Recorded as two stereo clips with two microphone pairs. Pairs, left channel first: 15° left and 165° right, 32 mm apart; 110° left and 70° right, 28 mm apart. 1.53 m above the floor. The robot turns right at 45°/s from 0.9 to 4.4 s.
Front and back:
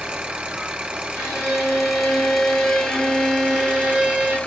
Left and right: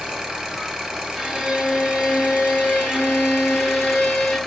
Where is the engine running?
125° right, 1.1 m; by 4.5 s 30° left, 1.1 m.